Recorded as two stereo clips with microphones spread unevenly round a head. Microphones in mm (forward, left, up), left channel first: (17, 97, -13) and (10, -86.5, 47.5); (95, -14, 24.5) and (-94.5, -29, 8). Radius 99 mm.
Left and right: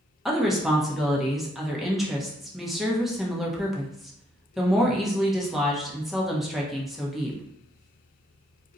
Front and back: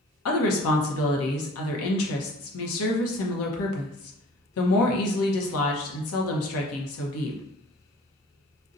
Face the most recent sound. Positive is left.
turn(degrees=0)